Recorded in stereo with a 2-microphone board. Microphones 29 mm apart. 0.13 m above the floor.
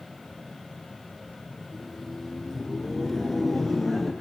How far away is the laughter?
About 4.5 m.